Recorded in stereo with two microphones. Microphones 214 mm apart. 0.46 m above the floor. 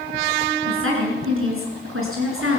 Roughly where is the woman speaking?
Right.